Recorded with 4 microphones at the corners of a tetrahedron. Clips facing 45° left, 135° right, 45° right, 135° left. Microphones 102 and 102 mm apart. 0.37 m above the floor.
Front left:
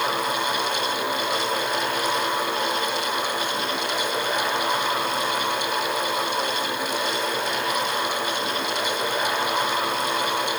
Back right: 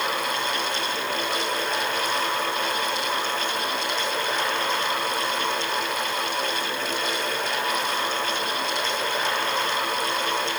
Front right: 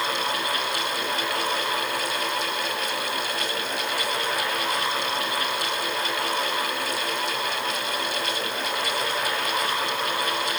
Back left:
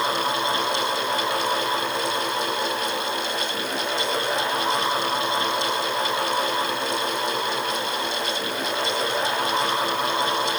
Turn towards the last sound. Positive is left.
No sound to turn to.